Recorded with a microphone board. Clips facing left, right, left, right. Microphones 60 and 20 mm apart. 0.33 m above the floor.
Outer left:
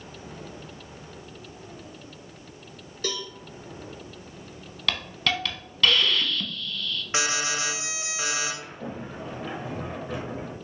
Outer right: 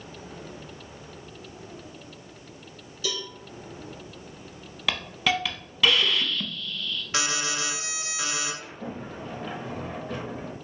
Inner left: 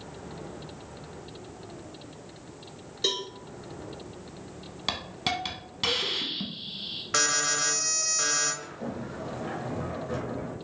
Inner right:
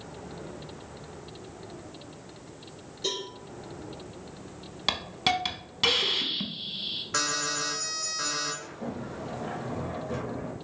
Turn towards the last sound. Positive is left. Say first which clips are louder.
# even, even
turn(degrees=5)  # may be behind; listen again after turning